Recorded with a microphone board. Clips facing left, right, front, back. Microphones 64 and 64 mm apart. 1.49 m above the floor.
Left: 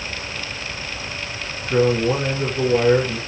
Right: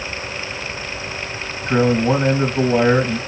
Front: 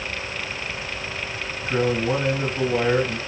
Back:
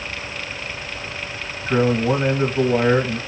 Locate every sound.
1.7 s a man speaking: 120° right, 2.5 m